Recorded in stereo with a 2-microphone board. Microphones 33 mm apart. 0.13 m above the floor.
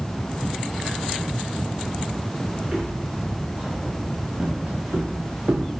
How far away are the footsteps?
About 3.5 m.